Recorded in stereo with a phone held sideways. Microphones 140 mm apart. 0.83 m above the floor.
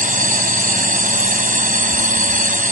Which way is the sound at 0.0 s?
85° right.